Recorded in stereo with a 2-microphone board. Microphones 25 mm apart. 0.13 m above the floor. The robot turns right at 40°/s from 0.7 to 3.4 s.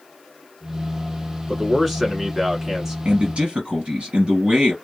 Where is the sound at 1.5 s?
5° left (ahead or behind), 1.2 m; by 3.0 s 15° right (ahead or behind), 1.2 m.